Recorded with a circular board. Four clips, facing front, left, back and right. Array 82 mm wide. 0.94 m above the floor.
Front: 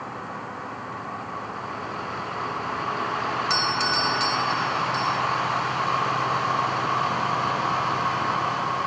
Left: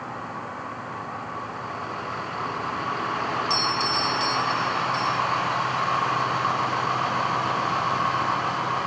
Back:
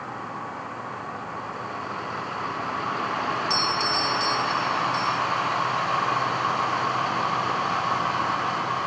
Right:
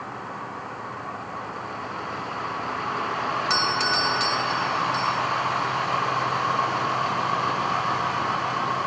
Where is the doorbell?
60° right.